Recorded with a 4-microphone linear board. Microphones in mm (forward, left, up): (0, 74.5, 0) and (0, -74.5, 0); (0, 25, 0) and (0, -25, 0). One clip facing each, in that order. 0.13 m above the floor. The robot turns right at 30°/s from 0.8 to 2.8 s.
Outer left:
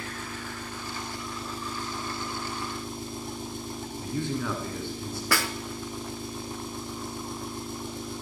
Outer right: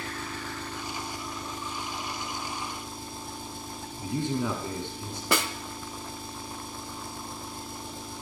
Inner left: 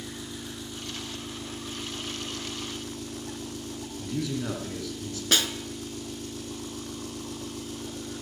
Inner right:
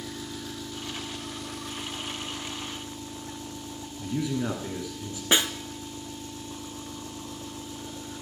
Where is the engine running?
15° left, 2 m; by 8.2 s 75° left, 2 m.